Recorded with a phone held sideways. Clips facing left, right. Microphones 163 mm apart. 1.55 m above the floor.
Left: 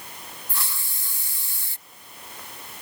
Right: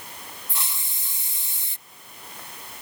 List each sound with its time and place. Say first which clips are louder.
0.5 s a hiss: left 1 dB; 20° right (ahead or behind)